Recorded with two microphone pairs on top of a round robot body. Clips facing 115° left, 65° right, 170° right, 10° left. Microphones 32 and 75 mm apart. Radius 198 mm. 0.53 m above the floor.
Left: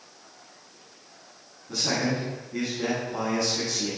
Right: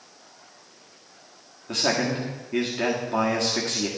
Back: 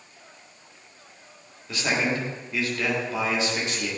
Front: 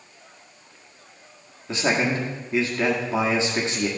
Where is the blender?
No blender in this recording.